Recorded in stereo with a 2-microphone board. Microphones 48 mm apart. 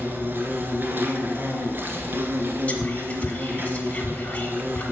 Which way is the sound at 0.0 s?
45° right (ahead or behind).